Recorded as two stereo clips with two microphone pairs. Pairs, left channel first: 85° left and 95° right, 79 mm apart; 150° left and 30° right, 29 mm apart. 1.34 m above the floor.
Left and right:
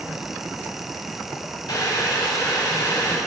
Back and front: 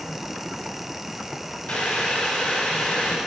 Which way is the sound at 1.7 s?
110° left.